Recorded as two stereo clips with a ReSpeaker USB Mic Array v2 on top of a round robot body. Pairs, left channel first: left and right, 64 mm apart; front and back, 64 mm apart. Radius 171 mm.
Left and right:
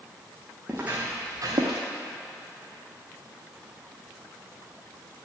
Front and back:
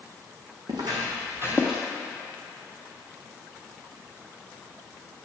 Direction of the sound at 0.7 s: 165° right.